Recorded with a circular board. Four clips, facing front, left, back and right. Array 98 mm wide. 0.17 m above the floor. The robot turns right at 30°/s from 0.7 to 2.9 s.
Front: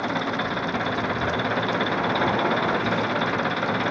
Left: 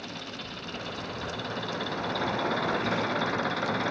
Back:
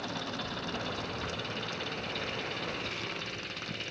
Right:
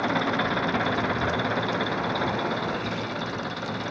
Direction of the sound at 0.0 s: 55° right.